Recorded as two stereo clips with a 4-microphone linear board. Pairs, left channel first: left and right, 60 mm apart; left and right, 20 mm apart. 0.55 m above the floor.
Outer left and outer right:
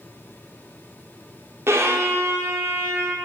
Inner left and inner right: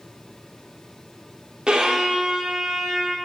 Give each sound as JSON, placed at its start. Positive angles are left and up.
{"t": 1.7, "sound": "a violin", "side_deg": -45, "distance_m": 0.9}